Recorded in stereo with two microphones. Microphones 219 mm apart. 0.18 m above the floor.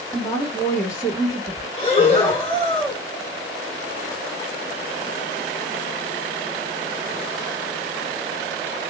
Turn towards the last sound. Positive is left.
turn(degrees=30)  # may be behind; listen again after turning